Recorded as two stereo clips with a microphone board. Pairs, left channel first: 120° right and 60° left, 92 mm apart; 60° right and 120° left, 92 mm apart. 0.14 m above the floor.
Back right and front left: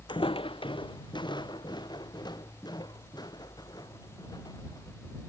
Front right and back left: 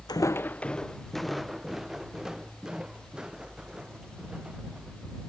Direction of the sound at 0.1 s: 95° right.